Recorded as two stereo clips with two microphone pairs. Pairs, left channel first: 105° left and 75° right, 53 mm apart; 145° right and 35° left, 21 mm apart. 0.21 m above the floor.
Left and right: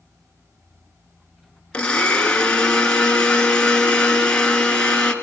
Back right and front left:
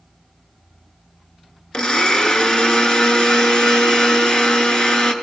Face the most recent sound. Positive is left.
turn(degrees=175)